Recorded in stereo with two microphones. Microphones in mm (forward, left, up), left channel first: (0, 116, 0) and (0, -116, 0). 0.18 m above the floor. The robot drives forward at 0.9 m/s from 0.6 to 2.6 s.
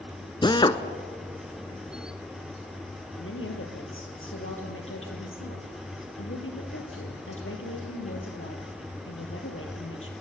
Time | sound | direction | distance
0.4 | a drill | 20° left (ahead or behind) | 0.9 m
3.2 | a woman speaking | 70° left (ahead or behind) | 4 m